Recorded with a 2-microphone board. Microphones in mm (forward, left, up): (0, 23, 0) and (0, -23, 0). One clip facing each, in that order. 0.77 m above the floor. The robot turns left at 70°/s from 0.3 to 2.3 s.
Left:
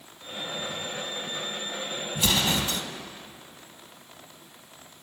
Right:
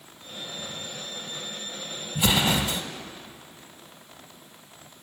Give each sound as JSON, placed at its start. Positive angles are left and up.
{"t": 2.1, "sound": "an explosion", "side_deg": -20, "distance_m": 0.9}